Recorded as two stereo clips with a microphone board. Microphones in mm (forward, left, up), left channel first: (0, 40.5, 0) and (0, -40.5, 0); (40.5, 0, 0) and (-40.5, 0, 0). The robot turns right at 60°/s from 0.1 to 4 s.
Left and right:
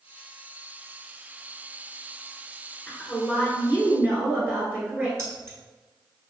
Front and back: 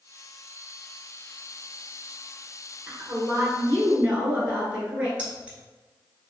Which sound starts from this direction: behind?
A woman speaking, at 2.9 s.